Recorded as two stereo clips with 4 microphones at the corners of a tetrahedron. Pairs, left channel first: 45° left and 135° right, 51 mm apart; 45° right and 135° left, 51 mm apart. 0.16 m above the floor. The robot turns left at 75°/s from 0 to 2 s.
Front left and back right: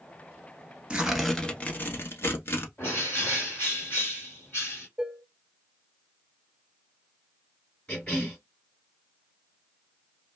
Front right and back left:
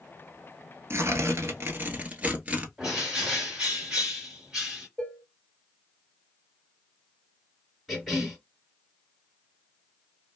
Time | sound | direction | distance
0.9 | tearing paper | 155° left | 0.8 m
2.8 | a bird | 65° left | 1.6 m
5.0 | dishes clattering | 95° right | 0.7 m
7.9 | a cough | 50° left | 1.7 m